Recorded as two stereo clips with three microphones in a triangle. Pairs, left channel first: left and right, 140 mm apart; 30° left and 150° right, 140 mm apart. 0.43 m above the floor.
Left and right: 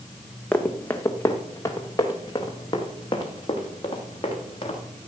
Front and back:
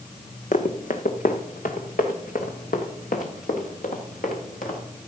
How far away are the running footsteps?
About 1.4 m.